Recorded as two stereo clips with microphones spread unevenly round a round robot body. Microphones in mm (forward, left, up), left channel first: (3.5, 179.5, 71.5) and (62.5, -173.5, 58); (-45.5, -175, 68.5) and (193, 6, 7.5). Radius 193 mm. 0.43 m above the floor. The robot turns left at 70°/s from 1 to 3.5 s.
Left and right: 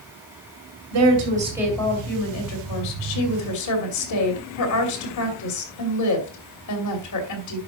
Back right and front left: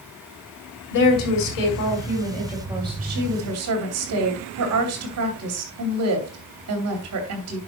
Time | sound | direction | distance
0.9 | a woman speaking | 120° right | 2.5 m